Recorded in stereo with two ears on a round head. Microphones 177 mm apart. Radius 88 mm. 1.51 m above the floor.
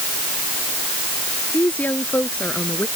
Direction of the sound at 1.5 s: 10° left (ahead or behind).